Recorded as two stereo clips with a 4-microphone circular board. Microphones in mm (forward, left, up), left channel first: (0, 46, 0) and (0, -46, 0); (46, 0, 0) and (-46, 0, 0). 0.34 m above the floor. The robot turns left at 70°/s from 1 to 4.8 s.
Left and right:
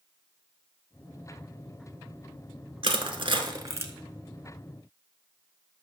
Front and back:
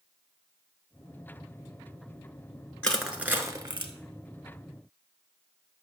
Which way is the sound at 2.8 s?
80° right.